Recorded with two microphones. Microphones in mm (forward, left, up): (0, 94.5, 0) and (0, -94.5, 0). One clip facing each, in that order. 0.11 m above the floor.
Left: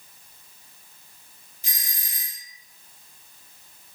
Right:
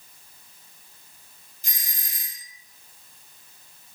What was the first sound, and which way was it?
A doorbell, centre (ahead or behind).